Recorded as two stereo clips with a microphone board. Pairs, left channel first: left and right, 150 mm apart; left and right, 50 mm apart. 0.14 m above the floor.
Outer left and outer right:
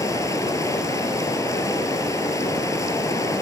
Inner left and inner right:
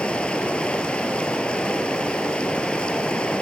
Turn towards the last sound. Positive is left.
turn(degrees=20)  # may be behind; listen again after turning